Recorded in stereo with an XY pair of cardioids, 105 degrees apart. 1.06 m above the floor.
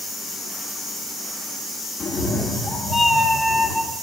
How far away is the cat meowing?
About 1.2 m.